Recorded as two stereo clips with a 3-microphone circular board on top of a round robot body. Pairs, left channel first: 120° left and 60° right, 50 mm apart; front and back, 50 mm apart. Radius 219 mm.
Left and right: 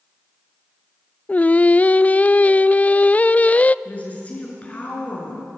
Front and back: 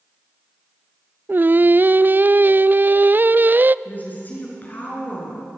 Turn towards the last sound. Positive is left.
turn(degrees=55)